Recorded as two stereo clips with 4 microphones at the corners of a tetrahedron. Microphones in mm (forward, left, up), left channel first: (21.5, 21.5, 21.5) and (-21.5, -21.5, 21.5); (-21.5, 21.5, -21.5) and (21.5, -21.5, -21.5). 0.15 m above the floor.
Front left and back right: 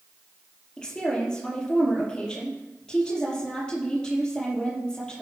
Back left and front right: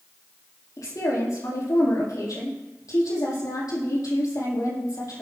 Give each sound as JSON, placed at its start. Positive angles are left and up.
{"t": 0.8, "sound": "a woman speaking", "azimuth_deg": 125, "distance_m": 5.5}